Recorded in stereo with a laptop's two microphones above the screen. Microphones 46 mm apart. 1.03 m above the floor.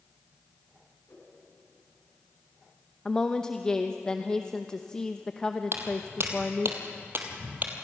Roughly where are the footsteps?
Right.